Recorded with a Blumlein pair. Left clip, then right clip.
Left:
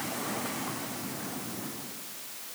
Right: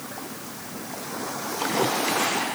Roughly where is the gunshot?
I don't hear a gunshot.